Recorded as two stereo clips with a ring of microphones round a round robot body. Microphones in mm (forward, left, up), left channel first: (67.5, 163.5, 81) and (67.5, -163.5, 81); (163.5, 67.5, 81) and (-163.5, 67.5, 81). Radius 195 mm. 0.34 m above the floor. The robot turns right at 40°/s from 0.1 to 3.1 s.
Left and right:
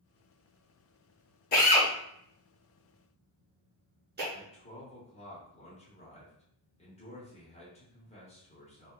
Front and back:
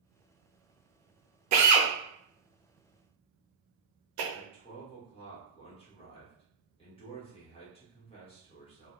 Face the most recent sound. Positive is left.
turn(degrees=50)